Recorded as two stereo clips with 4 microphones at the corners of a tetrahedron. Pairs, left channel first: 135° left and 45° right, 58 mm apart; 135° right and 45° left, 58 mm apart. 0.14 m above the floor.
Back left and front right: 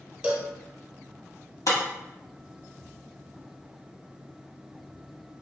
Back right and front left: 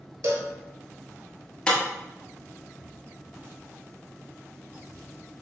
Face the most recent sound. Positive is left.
turn(degrees=150)